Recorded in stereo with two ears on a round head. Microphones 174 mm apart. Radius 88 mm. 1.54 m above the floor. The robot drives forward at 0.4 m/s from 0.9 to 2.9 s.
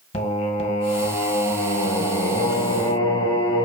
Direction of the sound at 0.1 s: 35° left (ahead or behind).